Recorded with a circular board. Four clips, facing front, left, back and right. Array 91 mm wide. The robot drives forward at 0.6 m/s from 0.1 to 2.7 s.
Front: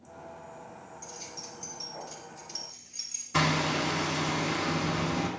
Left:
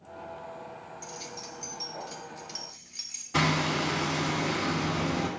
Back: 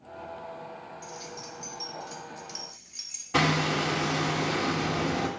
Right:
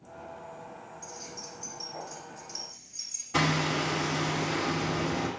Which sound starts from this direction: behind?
Hammering, at 3.3 s.